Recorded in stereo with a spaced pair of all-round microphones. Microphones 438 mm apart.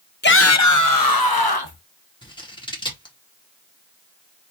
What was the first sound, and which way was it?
A shout, 25° left (ahead or behind).